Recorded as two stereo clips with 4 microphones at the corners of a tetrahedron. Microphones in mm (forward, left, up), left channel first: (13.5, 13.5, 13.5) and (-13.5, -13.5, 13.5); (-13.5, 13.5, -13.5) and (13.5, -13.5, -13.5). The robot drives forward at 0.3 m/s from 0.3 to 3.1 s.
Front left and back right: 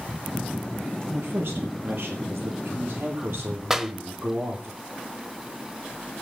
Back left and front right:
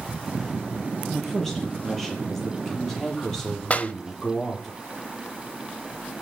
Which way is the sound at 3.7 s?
150° left.